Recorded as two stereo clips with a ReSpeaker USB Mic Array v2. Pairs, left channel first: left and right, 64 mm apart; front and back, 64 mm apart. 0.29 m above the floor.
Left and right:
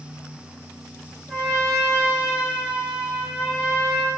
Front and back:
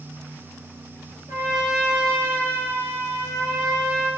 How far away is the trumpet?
About 1.9 m.